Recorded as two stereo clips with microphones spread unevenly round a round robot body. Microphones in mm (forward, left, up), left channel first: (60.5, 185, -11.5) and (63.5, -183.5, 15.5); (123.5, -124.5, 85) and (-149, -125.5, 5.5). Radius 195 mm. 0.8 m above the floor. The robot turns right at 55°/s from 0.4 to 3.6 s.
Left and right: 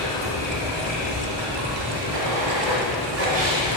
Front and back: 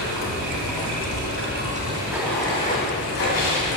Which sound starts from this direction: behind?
Running water, at 0.0 s.